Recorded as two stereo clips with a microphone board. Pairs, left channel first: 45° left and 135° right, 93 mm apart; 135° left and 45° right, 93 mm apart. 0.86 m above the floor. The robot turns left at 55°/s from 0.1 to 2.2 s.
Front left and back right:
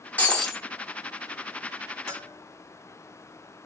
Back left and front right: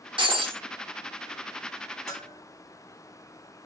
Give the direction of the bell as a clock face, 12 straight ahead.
6 o'clock.